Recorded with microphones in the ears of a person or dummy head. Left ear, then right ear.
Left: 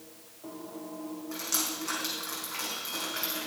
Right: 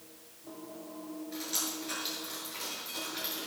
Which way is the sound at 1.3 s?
60° left (ahead or behind).